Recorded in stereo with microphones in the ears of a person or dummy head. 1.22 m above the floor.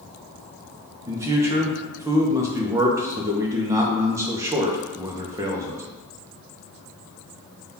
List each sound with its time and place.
1.1 s a man speaking: 15° right (ahead or behind), 0.5 m